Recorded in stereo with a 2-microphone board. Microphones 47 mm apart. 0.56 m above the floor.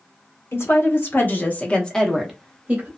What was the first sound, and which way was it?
A woman speaking, 60° left (ahead or behind).